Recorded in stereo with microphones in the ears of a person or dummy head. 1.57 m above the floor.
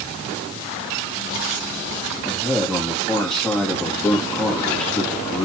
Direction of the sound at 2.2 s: 10° left (ahead or behind).